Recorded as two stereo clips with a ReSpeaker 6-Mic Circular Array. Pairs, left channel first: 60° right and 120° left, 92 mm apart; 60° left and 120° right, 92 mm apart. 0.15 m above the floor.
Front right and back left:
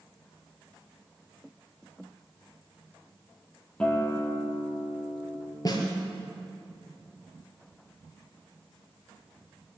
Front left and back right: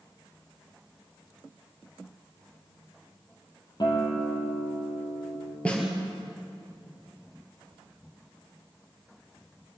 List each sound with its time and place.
3.8 s a guitar: 20° left, 4 m
5.7 s a snare drum: 15° right, 3.5 m